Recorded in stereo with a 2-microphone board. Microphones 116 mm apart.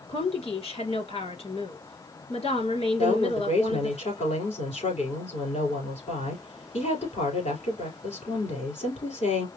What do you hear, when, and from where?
0.1 s a woman speaking: 60° left (ahead or behind), 2.5 m
3.0 s a woman speaking: 70° left (ahead or behind), 4 m